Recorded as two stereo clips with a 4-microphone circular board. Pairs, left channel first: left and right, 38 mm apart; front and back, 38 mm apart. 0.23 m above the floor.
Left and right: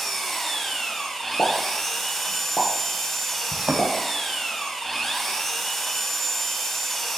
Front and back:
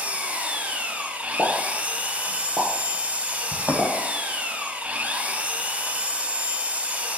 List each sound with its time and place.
0.0 s an engine running: 170° left, 1.2 m
1.4 s a pop: 115° left, 3.5 m
3.5 s a thud: 150° right, 2.5 m